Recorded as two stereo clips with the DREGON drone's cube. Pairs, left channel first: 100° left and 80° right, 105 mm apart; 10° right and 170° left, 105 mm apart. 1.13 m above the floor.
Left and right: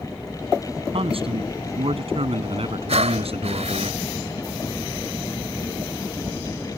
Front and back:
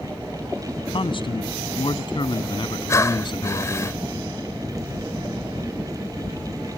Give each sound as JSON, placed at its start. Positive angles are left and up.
{"t": 0.9, "sound": "a man speaking", "azimuth_deg": -50}
{"t": 2.9, "sound": "breathing", "azimuth_deg": -75}